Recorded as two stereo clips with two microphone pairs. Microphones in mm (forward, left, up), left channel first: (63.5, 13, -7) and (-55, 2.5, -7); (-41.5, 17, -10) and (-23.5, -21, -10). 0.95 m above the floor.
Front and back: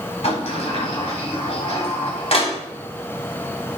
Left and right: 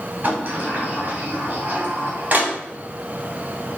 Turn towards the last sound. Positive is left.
turn(degrees=-15)